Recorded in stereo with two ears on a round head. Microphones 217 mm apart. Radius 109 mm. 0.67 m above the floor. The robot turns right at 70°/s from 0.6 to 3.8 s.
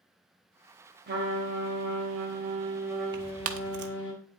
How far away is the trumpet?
About 2.5 m.